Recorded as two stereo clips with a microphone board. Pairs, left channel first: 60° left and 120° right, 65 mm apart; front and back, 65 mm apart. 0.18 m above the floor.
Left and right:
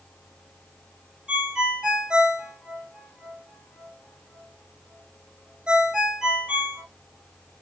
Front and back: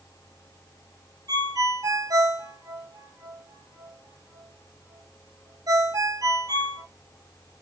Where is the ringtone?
160° left, 2 m.